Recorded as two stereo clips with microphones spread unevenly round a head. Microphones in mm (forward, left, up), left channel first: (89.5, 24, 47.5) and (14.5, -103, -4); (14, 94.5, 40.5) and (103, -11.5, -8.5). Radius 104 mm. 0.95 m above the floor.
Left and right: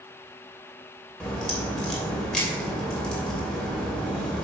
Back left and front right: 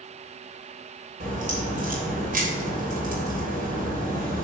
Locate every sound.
1.2 s a crack: 25° right, 3 m